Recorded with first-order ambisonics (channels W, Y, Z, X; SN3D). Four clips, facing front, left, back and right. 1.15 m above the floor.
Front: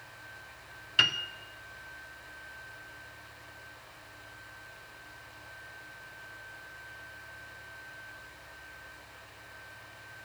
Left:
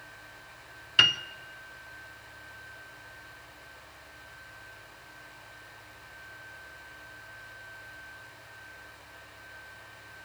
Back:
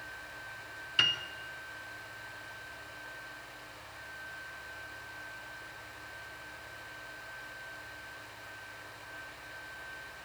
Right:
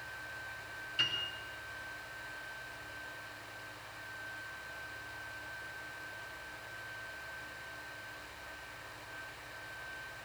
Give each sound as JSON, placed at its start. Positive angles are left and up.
{"t": 1.0, "sound": "a piano", "azimuth_deg": 75, "distance_m": 0.6}